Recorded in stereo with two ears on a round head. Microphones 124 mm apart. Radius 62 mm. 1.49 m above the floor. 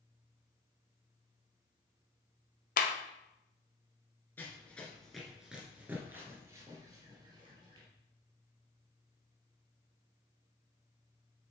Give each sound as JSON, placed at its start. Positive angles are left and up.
{"t": 2.8, "sound": "a clap", "side_deg": 70, "distance_m": 0.8}
{"t": 4.4, "sound": "running footsteps", "side_deg": 15, "distance_m": 1.5}